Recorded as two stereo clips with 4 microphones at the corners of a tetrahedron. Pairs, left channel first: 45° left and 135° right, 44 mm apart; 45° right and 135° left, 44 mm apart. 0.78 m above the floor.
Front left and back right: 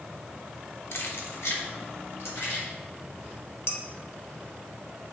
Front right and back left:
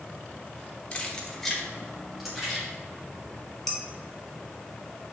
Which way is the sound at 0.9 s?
20° left.